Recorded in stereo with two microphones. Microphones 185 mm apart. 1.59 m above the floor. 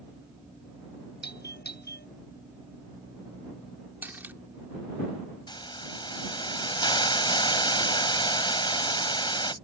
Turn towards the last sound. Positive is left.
turn(degrees=25)  # may be behind; listen again after turning